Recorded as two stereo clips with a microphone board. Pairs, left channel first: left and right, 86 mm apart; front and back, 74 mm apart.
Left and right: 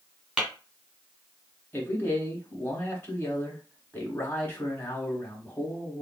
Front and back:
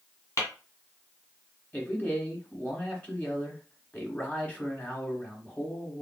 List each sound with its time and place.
0.4 s tapping: 10° right, 1.8 m
1.7 s a man speaking: 45° left, 1.1 m